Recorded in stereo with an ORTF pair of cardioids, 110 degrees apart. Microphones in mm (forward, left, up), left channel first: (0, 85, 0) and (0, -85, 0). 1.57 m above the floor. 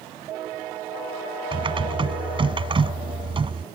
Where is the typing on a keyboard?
30° right.